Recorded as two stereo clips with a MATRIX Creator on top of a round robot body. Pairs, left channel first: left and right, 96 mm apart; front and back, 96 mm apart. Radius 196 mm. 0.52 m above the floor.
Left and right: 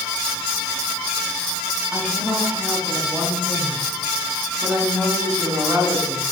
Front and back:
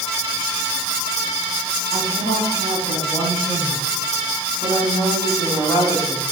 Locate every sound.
1.9 s a woman speaking: 5° right, 8.5 m; by 6.2 s 30° right, 9 m